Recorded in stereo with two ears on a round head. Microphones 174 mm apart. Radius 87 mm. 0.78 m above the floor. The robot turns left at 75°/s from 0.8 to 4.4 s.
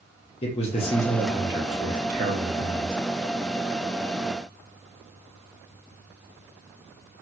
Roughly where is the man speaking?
Ahead left.